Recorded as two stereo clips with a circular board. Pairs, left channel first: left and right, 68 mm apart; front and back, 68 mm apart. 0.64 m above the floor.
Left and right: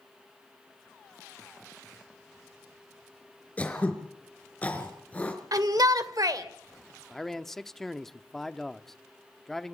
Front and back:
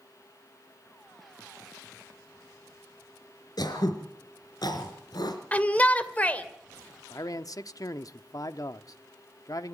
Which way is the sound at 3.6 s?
20° left.